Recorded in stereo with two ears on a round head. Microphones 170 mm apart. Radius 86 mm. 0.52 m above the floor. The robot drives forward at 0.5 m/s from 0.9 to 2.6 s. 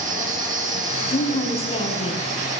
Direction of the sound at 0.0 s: 45° right (ahead or behind).